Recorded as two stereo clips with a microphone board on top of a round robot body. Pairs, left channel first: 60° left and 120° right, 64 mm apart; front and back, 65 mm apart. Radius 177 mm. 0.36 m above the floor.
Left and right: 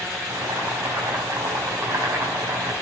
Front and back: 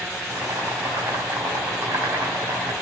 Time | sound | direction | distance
0.3 | boiling | 145° right | 5 m